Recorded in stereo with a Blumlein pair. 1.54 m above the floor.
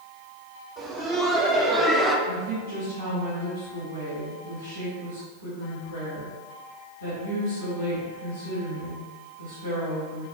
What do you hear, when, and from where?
0.8 s laughter: 20° right, 1.3 m; by 2.2 s 5° right, 0.6 m
2.3 s a woman speaking: 65° right, 1.9 m